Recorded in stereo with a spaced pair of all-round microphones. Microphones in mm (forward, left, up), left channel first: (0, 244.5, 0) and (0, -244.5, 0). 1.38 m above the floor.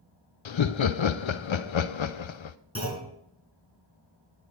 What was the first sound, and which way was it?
Laughter, 70° left (ahead or behind).